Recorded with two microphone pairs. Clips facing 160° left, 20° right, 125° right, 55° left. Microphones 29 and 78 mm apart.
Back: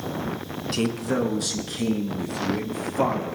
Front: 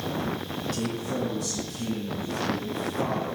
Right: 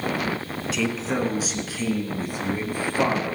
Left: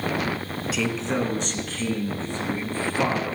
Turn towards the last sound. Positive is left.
turn(degrees=165)